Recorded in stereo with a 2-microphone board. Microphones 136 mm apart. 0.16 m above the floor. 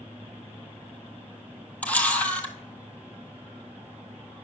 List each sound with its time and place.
1.8 s a camera shutter: 10° left (ahead or behind), 1.0 m